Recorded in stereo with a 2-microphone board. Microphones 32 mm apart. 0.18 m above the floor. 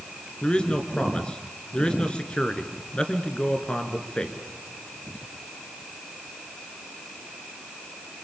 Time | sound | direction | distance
0.4 | a man speaking | 30° left (ahead or behind) | 3 m